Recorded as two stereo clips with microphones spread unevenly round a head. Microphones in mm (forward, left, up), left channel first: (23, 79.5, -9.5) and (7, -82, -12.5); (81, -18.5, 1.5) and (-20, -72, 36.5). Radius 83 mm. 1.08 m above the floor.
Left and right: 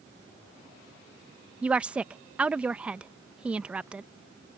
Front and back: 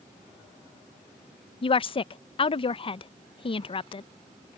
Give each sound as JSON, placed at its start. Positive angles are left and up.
{"t": 1.6, "sound": "a woman speaking", "azimuth_deg": -10}